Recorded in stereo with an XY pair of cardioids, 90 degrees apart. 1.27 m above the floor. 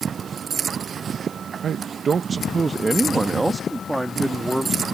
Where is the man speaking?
65° right; by 4.8 s straight ahead.